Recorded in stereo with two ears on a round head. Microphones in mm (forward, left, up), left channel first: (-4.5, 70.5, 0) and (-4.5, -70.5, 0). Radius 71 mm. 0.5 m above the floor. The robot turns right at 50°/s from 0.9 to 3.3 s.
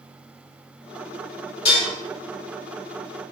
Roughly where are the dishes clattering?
Left.